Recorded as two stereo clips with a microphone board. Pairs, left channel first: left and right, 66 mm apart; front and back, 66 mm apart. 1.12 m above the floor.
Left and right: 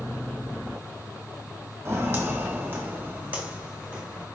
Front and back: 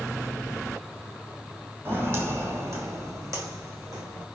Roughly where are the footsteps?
Behind right.